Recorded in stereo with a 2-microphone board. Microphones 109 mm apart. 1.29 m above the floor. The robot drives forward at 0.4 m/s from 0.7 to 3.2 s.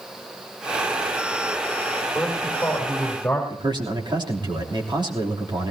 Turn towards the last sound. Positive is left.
turn(degrees=-45)  # may be behind; listen again after turning